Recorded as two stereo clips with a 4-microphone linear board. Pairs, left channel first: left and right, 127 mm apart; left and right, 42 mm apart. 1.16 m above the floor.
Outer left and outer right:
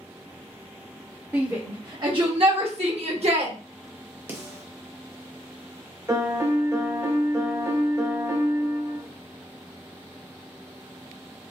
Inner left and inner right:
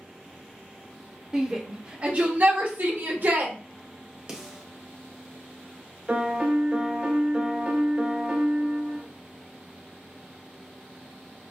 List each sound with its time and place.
1.3 s a shout: 20° right (ahead or behind), 0.8 m; by 3.5 s 50° right (ahead or behind), 1.1 m
4.3 s a snare drum: 20° right (ahead or behind), 0.9 m
6.1 s a piano: 25° right (ahead or behind), 0.6 m